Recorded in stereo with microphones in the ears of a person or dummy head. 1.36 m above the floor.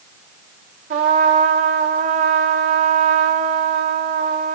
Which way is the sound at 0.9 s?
50° right (ahead or behind).